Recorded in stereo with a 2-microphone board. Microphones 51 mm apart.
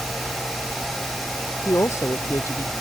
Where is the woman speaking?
80° left.